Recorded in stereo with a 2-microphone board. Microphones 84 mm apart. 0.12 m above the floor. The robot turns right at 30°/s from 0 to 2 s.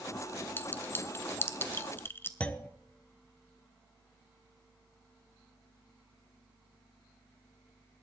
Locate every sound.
0.6 s a clink: 25° left (ahead or behind), 0.7 m
2.4 s a clunk: 15° left (ahead or behind), 0.6 m